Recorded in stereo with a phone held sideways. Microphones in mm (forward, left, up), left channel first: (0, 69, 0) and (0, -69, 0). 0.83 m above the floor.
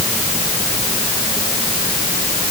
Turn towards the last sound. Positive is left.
No sound to turn to.